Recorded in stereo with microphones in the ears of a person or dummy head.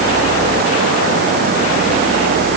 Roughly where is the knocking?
I don't hear knocking.